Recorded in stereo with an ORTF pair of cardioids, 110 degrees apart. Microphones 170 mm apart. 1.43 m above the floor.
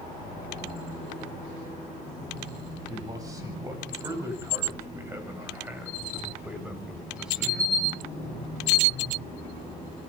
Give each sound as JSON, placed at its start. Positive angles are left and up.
{"t": 2.9, "sound": "a man speaking", "azimuth_deg": -20, "distance_m": 9.5}